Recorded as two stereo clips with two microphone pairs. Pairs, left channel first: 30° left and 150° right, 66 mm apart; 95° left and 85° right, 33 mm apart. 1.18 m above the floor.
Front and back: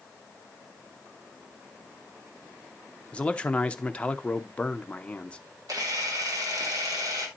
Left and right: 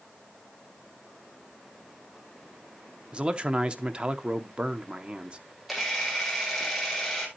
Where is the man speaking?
30° right, 0.9 m.